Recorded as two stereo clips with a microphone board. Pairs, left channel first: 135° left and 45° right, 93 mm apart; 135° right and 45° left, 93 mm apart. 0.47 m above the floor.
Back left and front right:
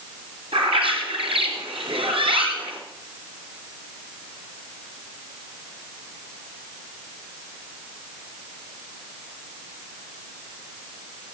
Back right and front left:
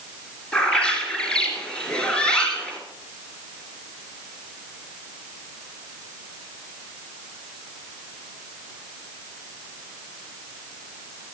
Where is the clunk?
I don't hear a clunk.